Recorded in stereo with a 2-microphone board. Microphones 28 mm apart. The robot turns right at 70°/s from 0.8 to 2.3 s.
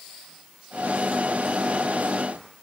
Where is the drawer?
No drawer in this recording.